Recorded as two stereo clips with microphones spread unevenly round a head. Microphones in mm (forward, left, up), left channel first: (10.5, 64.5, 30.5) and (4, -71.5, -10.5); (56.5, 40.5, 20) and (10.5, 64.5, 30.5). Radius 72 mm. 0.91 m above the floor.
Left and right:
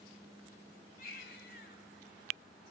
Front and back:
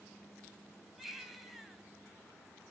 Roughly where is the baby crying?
Left.